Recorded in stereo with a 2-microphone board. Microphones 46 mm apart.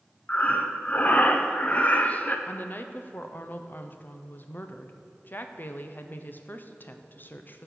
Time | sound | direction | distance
0.3 | breathing | 30° left (ahead or behind) | 0.5 m
2.5 | a woman speaking | 45° left (ahead or behind) | 0.5 m